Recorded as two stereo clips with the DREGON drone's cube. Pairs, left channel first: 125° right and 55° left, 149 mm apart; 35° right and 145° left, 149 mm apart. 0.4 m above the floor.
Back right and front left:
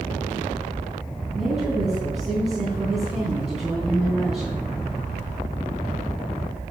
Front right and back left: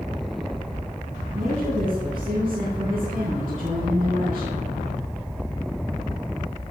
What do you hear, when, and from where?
1.3 s a woman speaking: 140° left, 3 m